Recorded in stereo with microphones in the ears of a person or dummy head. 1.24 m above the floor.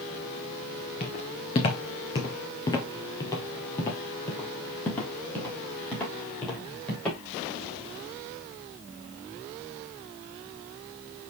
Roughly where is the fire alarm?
No fire alarm in this recording.